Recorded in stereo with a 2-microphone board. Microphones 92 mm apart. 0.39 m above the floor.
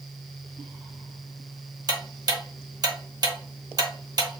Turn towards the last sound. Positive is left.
turn(degrees=-45)  # may be behind; listen again after turning